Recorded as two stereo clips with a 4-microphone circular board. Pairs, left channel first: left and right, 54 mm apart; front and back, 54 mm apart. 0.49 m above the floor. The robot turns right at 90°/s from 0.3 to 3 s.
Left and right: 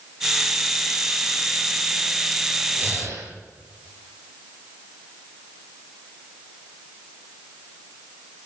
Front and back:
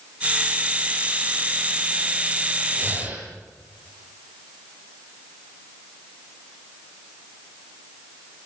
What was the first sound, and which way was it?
Breathing, 145° right.